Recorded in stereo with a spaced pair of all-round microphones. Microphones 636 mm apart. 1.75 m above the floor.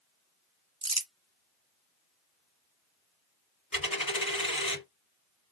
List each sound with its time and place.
0.8 s crumpling: 25° right (ahead or behind), 0.8 m
3.7 s a dropped coin: 30° left (ahead or behind), 2 m